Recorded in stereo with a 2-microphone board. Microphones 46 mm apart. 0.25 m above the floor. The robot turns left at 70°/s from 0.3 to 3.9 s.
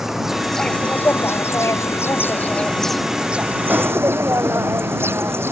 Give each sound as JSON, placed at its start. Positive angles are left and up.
{"t": 0.0, "sound": "an insect", "azimuth_deg": -170}